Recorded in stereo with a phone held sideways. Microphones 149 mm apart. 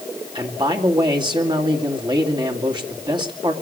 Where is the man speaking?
30° right (ahead or behind), 2.5 m.